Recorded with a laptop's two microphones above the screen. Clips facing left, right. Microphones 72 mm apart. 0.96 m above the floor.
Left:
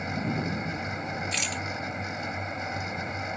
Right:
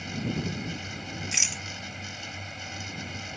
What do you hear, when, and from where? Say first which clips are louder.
0.0 s a fan: left 2 dB; 35° left (ahead or behind)
1.3 s a rattle: left 4 dB; 10° right (ahead or behind)